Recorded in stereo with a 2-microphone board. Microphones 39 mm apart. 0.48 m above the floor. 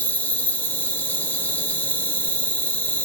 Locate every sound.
0.0 s an insect: 60° left (ahead or behind), 0.7 m